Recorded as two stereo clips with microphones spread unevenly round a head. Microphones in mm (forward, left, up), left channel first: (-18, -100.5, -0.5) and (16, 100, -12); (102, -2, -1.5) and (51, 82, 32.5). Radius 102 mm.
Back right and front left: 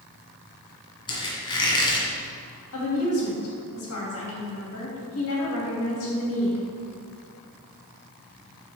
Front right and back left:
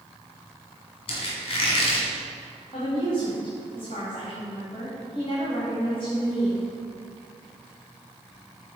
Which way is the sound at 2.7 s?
120° right.